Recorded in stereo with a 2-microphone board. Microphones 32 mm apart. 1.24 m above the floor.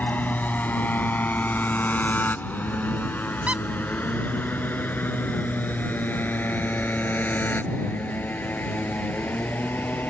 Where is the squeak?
50° right (ahead or behind).